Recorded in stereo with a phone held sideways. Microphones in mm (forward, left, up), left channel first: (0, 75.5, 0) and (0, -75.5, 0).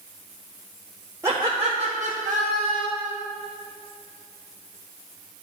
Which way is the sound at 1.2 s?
20° right (ahead or behind).